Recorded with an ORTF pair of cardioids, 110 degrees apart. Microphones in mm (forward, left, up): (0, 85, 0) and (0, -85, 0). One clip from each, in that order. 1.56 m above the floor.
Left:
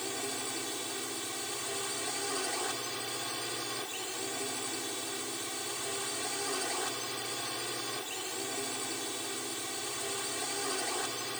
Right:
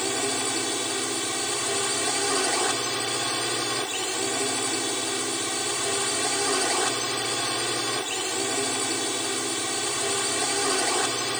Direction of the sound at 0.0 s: 60° right.